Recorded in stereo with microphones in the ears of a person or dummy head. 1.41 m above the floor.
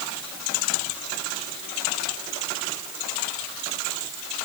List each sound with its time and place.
Only background noise.